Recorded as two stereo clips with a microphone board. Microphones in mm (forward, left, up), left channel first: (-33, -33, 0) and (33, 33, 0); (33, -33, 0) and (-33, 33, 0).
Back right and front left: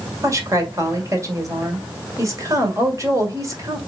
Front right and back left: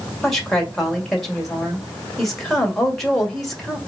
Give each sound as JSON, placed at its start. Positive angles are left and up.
{"t": 0.2, "sound": "a woman speaking", "azimuth_deg": 40, "distance_m": 1.7}